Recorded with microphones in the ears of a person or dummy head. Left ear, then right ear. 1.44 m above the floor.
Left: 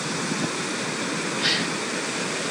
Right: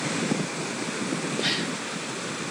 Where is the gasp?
15° right (ahead or behind), 1.4 m.